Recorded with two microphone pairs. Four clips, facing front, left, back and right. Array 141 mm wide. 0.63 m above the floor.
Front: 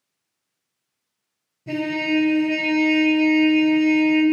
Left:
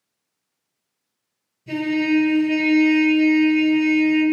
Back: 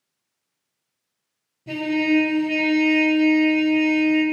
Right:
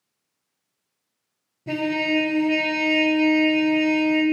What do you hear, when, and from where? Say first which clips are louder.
1.7 s a trumpet: left 3 dB, back 2 dB; 90° right, 1.1 m